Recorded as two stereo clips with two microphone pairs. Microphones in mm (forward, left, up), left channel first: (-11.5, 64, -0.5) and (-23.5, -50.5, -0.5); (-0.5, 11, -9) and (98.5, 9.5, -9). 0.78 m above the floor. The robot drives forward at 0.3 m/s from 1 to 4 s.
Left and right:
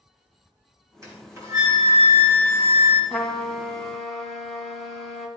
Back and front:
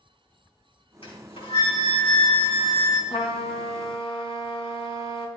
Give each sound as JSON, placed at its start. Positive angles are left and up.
{"t": 1.0, "sound": "a flute", "azimuth_deg": -160, "distance_m": 3.5}
{"t": 3.1, "sound": "a trumpet", "azimuth_deg": 170, "distance_m": 1.5}